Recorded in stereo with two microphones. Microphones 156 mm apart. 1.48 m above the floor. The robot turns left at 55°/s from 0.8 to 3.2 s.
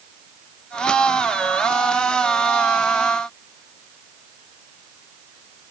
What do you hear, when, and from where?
Only background noise.